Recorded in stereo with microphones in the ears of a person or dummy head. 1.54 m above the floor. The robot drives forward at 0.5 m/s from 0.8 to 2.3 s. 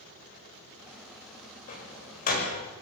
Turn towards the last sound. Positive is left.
turn(degrees=45)  # may be behind; listen again after turning